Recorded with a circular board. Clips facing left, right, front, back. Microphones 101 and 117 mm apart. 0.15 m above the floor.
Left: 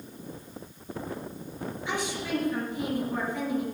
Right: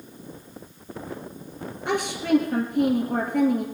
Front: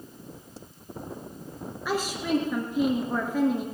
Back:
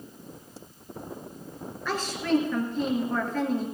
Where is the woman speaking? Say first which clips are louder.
Right 9 dB, back 1 dB; 75° right, 2 m.